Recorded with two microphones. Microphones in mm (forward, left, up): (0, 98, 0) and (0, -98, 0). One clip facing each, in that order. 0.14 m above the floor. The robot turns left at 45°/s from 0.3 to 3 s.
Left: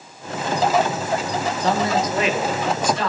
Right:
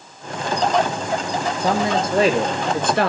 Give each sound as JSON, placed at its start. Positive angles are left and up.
{"t": 1.6, "sound": "a man speaking", "azimuth_deg": -10, "distance_m": 2.0}